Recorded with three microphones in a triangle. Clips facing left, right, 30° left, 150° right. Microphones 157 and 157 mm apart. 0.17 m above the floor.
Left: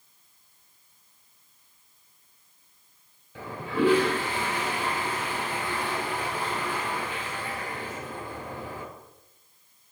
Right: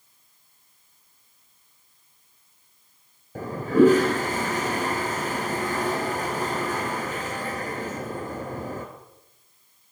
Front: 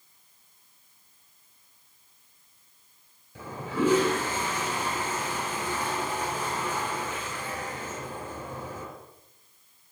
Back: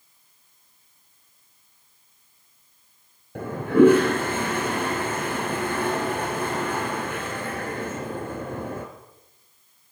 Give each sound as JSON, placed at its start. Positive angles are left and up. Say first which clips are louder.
{"t": 3.4, "sound": "a toilet flushing", "louder": "right 10 dB, back 13 dB", "azimuth_deg": -130, "distance_m": 4.0}